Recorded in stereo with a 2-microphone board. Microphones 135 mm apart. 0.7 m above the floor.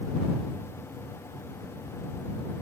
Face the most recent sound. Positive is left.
No sound to turn to.